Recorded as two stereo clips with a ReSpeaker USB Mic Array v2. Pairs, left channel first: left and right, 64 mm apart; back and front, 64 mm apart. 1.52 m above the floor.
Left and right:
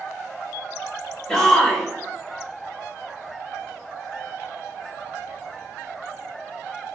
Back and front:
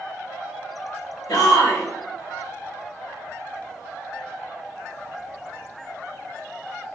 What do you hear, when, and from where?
1.3 s a shout: 170° left, 1.8 m